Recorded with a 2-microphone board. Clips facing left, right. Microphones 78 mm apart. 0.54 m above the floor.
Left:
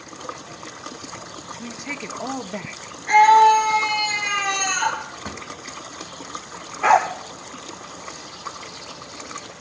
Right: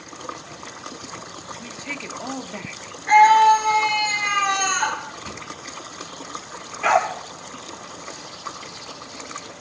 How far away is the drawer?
About 1.5 m.